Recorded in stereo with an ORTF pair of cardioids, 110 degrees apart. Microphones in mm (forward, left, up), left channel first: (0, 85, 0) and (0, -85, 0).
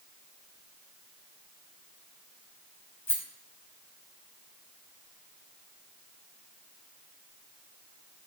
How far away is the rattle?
About 0.7 m.